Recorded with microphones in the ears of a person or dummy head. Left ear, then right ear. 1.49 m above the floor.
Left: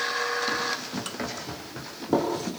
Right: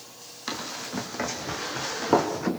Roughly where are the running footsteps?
Centre.